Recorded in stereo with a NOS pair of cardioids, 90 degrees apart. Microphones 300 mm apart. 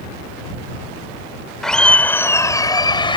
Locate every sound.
1.6 s laughter: straight ahead; by 3.2 s 15° left